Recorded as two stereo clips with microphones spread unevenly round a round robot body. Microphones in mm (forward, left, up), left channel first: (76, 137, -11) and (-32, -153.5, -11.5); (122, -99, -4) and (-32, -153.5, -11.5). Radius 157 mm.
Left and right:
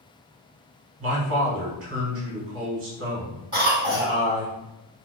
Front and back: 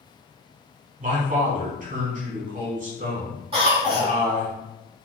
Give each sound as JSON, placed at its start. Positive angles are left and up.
{"t": 1.0, "sound": "a man speaking", "azimuth_deg": -150, "distance_m": 1.2}
{"t": 3.5, "sound": "a cough", "azimuth_deg": -175, "distance_m": 1.7}